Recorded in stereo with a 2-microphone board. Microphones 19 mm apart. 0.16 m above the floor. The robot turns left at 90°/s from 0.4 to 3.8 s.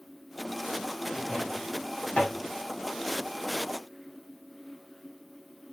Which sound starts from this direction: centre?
A drawer, at 1.1 s.